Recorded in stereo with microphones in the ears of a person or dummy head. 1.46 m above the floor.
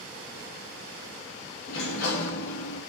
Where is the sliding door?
70° left (ahead or behind), 1.9 m.